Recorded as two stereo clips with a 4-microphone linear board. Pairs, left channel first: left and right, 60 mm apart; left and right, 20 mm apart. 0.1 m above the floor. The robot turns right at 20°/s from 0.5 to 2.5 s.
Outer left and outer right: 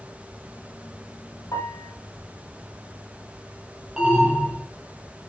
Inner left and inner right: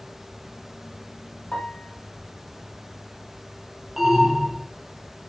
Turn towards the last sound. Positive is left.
turn(degrees=-10)  # may be behind; listen again after turning